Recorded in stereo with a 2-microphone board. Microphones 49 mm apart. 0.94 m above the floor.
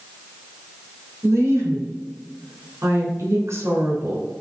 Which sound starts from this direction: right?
A woman speaking, at 1.2 s.